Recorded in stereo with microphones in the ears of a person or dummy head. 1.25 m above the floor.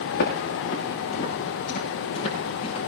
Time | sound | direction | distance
0.1 | footsteps | 60° left (ahead or behind) | 5 m